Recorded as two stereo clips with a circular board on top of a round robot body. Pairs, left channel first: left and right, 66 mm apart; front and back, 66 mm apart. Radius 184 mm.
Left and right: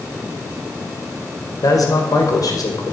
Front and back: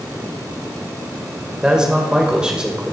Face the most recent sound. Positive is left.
turn(degrees=105)